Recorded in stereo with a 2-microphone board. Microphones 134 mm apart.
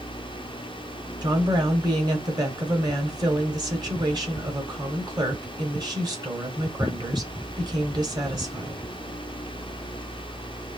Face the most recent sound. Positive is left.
turn(degrees=-30)  # may be behind; listen again after turning